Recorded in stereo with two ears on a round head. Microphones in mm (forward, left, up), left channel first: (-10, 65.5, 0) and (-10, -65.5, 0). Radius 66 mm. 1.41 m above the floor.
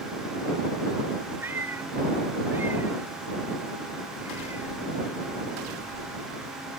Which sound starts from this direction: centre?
A cat meowing, at 1.4 s.